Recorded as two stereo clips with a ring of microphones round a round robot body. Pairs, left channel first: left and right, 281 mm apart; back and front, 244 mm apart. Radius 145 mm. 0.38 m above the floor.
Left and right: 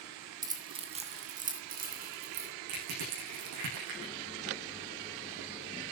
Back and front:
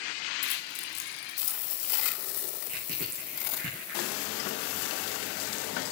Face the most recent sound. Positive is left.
turn(degrees=-65)